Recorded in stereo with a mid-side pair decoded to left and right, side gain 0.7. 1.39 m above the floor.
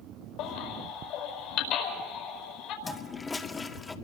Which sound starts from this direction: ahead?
A toilet flushing, at 2.8 s.